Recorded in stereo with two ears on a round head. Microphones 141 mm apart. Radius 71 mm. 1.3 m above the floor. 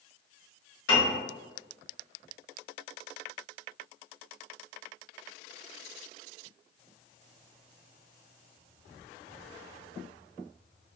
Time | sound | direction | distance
0.9 | a piano | 85° left | 1.5 m